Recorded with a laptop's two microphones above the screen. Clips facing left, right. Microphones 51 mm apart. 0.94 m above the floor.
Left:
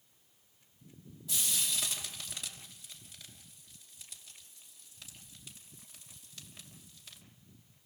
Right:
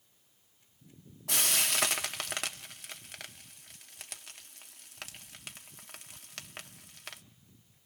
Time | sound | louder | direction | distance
1.3 | frying | right 6 dB | 70° right (ahead or behind) | 1.4 m